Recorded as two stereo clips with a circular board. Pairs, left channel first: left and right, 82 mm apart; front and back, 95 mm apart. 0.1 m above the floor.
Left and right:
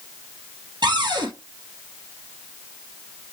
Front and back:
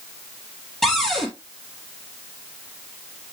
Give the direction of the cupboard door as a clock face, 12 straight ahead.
3 o'clock.